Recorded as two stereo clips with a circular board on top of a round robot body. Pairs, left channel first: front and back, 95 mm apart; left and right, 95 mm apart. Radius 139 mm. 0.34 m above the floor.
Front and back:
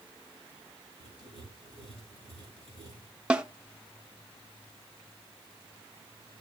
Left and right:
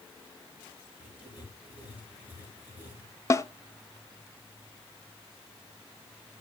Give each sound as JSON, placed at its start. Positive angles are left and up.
{"t": 1.0, "sound": "writing", "azimuth_deg": -15, "distance_m": 4.0}
{"t": 3.3, "sound": "a snare drum", "azimuth_deg": 110, "distance_m": 0.8}